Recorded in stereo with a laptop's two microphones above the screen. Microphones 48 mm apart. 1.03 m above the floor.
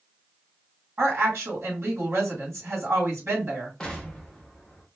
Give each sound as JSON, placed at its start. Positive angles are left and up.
{"t": 1.0, "sound": "a woman speaking", "side_deg": -70, "distance_m": 1.8}
{"t": 3.8, "sound": "an explosion", "side_deg": 15, "distance_m": 0.9}